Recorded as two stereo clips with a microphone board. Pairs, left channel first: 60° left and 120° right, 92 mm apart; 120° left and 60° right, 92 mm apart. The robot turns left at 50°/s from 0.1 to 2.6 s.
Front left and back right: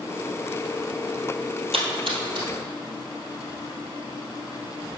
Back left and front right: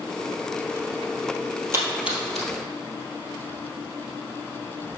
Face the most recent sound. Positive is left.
turn(degrees=-165)